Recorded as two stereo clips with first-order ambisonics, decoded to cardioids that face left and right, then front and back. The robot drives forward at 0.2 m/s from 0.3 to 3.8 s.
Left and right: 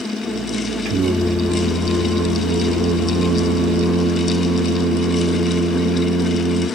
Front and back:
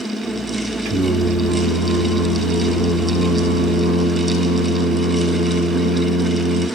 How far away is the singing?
About 0.9 m.